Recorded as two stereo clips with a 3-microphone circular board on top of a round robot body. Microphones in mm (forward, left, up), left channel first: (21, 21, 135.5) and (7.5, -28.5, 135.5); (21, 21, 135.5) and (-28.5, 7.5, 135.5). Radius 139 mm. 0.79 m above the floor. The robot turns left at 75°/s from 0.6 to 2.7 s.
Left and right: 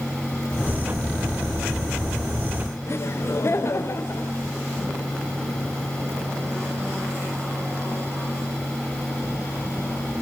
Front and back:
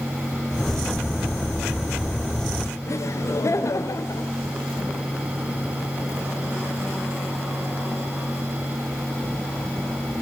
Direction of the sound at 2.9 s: 40° left.